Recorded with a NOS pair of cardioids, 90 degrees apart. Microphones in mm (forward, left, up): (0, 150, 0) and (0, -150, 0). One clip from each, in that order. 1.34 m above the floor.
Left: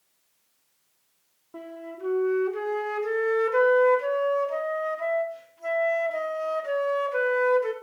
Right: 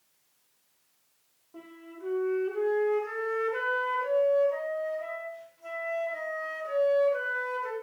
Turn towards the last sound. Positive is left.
turn(degrees=40)